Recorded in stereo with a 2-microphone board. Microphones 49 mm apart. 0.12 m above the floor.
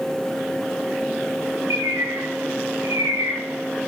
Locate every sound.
1.7 s a bird: 80° right, 8 m